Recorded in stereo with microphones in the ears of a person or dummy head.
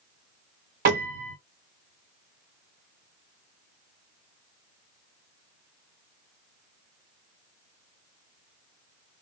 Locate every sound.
0.8 s a piano: 50° right (ahead or behind), 0.8 m